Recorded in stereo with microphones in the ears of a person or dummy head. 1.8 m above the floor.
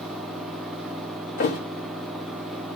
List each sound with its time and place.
0.0 s a fan: centre (ahead or behind), 2.5 m
1.4 s a thud: 40° left (ahead or behind), 1.5 m